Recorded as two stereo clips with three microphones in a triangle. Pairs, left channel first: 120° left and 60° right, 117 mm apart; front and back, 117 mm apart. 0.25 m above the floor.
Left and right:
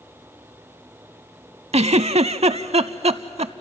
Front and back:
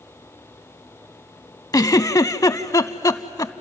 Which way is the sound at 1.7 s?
55° right.